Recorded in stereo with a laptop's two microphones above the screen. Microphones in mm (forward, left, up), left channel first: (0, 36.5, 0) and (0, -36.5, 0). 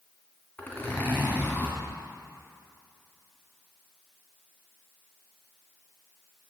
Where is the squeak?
I don't hear a squeak.